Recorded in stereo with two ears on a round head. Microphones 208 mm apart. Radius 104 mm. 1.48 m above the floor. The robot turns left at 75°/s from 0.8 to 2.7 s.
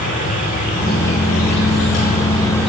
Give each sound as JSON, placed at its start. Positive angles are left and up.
{"t": 0.0, "sound": "an insect", "azimuth_deg": 140, "distance_m": 7.0}